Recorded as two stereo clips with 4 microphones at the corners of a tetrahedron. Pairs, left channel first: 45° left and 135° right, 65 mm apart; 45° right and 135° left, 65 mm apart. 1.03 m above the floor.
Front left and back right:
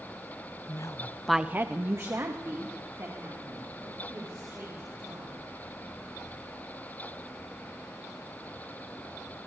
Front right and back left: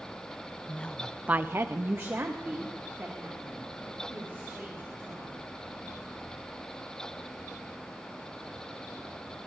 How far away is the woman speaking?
About 0.9 m.